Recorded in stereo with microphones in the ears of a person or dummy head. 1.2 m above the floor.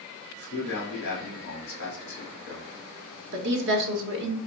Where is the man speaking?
45° left (ahead or behind), 1.8 m.